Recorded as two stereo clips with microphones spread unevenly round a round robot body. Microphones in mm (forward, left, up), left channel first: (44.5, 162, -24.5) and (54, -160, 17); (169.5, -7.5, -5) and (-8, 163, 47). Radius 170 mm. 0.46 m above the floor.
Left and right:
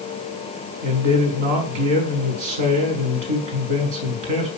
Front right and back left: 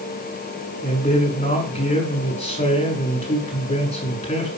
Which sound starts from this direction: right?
A man speaking, at 0.8 s.